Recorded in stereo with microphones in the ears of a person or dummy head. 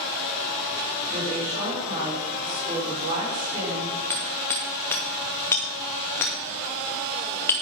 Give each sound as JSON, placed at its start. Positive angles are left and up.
{"t": 1.1, "sound": "a woman speaking", "side_deg": -35, "distance_m": 5.0}
{"t": 4.1, "sound": "hammering", "side_deg": 10, "distance_m": 1.0}